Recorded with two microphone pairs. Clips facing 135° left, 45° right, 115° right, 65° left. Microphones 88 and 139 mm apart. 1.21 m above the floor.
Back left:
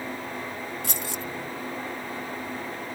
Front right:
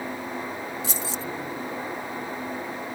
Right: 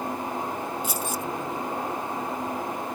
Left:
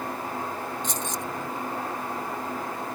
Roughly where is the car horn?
I don't hear a car horn.